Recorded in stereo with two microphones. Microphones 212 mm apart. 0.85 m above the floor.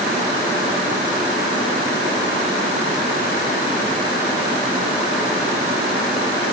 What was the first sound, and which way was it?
Only background noise.